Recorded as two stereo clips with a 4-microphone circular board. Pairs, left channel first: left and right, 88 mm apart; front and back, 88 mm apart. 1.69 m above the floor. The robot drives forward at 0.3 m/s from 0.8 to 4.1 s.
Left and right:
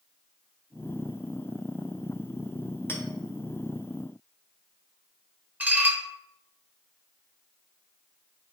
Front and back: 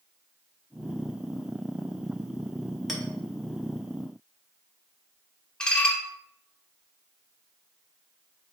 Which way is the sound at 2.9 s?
90° left.